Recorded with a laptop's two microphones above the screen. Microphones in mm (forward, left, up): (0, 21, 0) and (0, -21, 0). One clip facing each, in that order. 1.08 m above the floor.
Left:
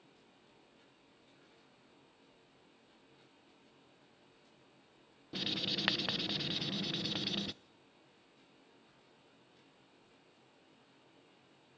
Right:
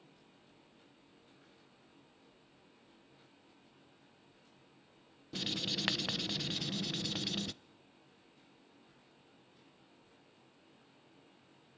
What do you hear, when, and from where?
5.3 s writing: 10° left (ahead or behind), 0.7 m